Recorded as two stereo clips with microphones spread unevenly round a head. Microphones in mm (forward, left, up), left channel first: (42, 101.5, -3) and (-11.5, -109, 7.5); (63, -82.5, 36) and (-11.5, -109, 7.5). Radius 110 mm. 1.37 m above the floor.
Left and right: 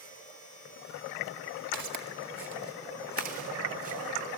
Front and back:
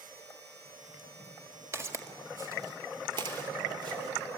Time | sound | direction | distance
1.7 | footsteps | 95° right | 1.7 m